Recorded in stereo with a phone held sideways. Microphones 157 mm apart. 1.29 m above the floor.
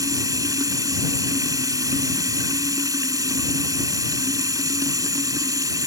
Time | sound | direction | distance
0.0 | running water | 25° right (ahead or behind) | ?